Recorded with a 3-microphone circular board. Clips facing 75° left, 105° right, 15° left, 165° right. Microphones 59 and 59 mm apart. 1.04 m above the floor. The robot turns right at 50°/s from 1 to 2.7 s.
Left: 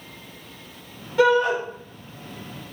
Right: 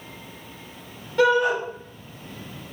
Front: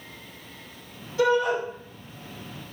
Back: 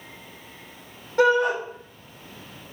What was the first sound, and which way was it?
A shout, 160° left.